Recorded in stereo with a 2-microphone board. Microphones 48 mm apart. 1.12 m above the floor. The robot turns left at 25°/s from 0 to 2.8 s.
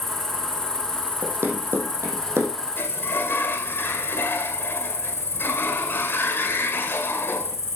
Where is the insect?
Straight behind, 3.5 m; by 7.8 s 110° left, 3.5 m.